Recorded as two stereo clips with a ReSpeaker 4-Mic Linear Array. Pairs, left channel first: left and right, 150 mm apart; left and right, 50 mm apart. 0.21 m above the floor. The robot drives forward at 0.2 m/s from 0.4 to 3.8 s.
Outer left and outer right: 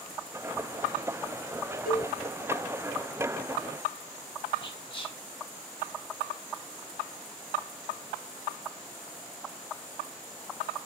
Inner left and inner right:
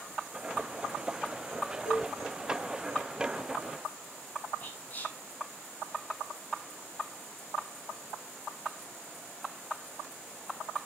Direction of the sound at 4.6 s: 35° left (ahead or behind).